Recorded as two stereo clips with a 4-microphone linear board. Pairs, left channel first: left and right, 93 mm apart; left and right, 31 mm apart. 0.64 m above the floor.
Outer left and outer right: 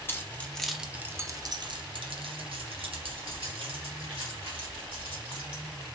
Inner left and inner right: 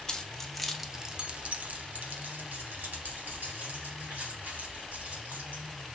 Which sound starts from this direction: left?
Keys jangling, at 0.1 s.